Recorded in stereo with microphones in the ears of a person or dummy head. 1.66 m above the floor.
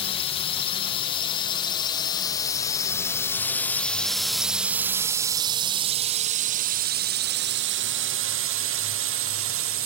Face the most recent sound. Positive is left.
turn(degrees=-65)  # may be behind; listen again after turning